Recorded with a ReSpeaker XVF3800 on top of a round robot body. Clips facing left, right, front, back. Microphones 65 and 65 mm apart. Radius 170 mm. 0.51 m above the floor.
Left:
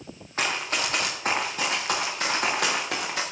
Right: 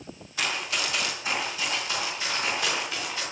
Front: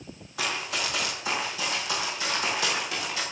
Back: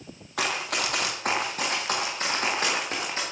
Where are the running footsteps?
150° left, 4 m; by 3.2 s 120° left, 6 m.